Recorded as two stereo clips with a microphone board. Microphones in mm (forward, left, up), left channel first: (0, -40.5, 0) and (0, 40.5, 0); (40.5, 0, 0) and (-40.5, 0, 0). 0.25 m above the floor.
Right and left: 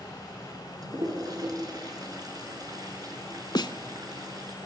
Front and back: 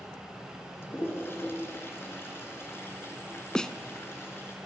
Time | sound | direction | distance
0.8 | a toilet flushing | 60° left | 3.5 m
3.5 | a snare drum | 80° right | 0.8 m